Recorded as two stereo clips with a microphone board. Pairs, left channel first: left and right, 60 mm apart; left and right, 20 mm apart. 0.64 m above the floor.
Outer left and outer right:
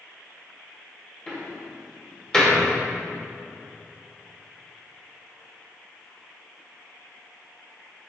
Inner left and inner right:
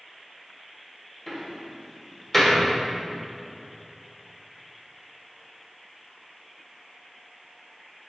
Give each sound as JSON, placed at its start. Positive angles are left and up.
{"t": 1.3, "sound": "a door slam", "side_deg": 15, "distance_m": 1.4}